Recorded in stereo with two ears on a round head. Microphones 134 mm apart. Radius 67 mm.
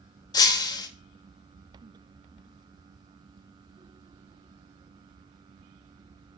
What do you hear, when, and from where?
0.3 s breaking glass: 25° left (ahead or behind), 0.9 m